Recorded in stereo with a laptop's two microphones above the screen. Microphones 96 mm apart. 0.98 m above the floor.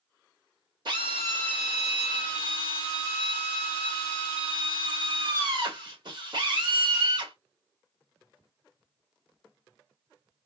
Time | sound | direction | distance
0.8 | a drill | 55° right (ahead or behind) | 2 m